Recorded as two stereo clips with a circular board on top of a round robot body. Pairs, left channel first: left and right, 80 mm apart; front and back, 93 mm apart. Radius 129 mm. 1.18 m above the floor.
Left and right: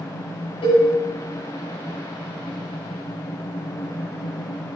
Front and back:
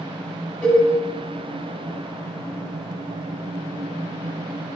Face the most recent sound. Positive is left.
turn(degrees=70)